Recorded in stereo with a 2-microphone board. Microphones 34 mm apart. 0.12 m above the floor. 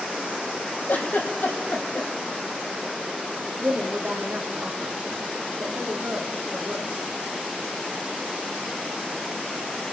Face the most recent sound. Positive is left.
turn(degrees=-65)  # may be behind; listen again after turning